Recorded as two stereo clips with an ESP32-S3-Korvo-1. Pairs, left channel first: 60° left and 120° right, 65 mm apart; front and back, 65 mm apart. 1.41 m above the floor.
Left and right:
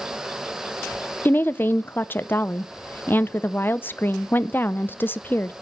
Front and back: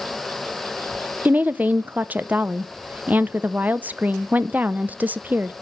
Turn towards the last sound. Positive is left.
turn(degrees=120)